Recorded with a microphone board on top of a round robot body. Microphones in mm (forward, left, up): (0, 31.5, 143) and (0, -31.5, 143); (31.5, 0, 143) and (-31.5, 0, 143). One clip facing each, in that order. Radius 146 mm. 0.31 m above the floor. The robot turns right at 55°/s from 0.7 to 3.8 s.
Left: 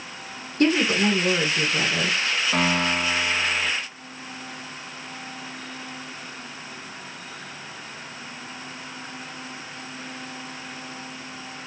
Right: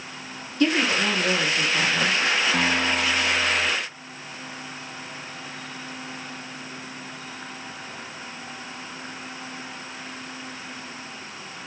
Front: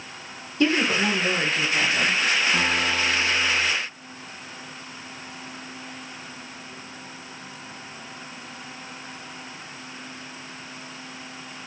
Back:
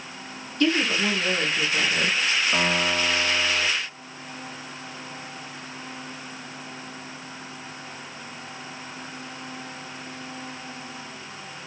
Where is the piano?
140° left, 2 m; by 3.7 s 155° right, 2 m.